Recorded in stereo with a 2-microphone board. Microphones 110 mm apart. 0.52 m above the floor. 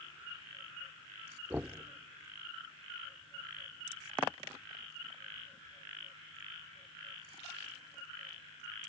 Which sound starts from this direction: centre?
Knocking, at 1.5 s.